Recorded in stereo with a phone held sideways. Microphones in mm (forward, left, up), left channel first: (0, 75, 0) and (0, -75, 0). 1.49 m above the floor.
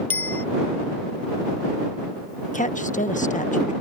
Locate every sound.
0.1 s a bicycle bell: 15° left (ahead or behind)
2.5 s a woman speaking: 55° left (ahead or behind)